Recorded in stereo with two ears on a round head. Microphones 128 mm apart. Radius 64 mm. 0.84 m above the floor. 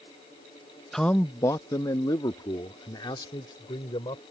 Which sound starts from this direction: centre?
A man speaking, at 0.9 s.